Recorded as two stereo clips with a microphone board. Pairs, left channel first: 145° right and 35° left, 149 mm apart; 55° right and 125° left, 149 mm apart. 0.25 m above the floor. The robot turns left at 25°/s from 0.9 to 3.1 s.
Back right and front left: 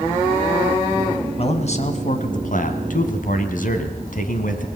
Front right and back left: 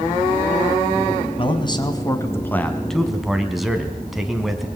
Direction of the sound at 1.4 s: 105° right.